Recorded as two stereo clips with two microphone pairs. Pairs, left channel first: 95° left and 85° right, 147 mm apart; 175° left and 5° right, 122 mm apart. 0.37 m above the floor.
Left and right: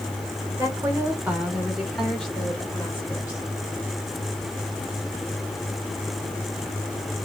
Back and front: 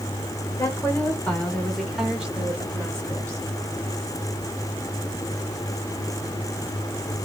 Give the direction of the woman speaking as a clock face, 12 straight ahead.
5 o'clock.